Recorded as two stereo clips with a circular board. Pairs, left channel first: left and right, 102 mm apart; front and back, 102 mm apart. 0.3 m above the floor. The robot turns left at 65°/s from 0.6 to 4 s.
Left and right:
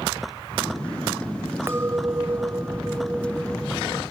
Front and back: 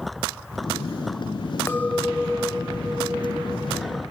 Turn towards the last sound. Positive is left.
turn(degrees=160)